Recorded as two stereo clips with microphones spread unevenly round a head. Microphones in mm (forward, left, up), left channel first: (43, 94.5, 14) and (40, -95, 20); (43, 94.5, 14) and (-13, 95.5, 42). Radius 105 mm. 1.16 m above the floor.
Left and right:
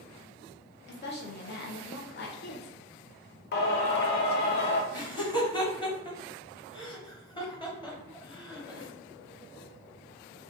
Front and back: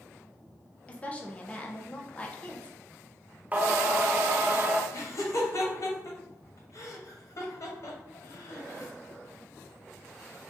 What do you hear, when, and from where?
0.9 s a woman speaking: 60° left, 1.0 m
3.5 s singing: 105° left, 0.6 m
4.9 s laughter: 25° left, 1.6 m